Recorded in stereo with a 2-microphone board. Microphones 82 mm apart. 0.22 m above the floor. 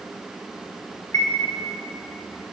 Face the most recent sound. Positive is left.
turn(degrees=40)  # may be behind; listen again after turning